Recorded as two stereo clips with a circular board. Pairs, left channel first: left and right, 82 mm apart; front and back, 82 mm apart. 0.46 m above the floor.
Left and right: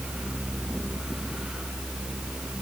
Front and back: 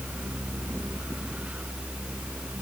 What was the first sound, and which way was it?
Only background noise.